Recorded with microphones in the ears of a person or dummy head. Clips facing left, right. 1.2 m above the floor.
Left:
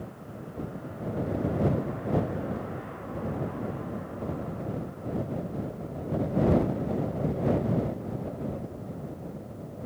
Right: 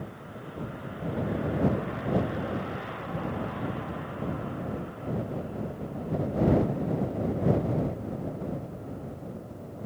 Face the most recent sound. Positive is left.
No sound to turn to.